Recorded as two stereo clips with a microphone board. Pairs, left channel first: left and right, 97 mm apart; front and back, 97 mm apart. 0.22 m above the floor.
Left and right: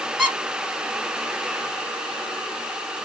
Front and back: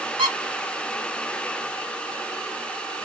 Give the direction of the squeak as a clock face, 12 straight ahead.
6 o'clock.